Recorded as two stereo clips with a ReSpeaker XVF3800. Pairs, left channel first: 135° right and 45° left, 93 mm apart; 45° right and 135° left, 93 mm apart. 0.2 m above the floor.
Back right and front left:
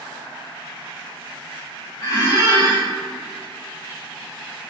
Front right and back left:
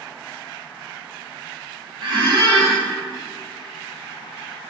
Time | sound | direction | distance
2.0 | a squeak | 175° left | 1.8 m